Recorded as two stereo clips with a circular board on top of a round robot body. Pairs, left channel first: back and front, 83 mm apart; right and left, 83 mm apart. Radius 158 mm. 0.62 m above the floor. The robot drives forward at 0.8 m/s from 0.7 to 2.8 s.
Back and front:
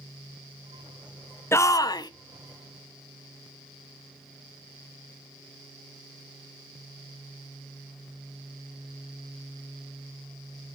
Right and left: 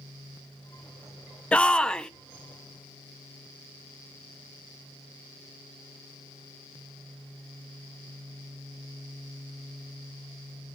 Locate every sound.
1.5 s a shout: 155° right, 0.8 m; by 2.1 s 170° right, 1.1 m